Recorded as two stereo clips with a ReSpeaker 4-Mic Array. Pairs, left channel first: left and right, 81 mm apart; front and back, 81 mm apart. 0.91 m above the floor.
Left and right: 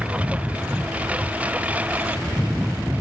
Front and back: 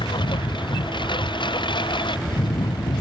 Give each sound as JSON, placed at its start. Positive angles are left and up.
{"t": 0.0, "sound": "a lawn mower", "azimuth_deg": -15}